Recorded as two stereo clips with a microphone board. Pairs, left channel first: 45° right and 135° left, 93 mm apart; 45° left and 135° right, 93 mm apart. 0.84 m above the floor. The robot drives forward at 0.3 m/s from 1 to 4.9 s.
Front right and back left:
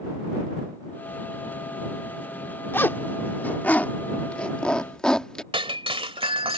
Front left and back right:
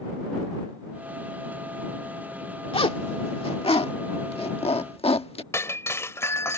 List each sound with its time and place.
2.7 s a zipper: 25° left; by 5.4 s 35° left
5.5 s breaking glass: 110° left